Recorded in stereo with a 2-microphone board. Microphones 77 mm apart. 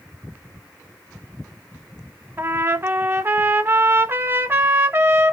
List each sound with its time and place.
2.4 s a trumpet: 30° right (ahead or behind), 0.5 m